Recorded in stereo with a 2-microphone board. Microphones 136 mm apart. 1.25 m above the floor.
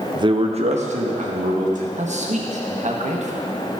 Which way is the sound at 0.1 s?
30° right (ahead or behind).